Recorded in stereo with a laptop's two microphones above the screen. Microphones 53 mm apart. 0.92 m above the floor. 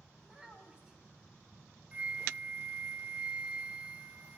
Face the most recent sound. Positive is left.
turn(degrees=-30)  # may be behind; listen again after turning